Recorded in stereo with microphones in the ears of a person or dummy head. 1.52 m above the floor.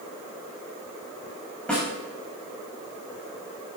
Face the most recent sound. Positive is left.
turn(degrees=5)  # may be behind; listen again after turning